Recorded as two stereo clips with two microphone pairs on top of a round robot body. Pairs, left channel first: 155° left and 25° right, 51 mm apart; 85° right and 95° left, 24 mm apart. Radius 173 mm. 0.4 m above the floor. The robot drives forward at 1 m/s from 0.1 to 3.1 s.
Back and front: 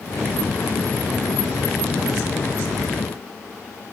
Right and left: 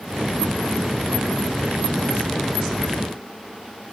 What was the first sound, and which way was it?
Only background noise.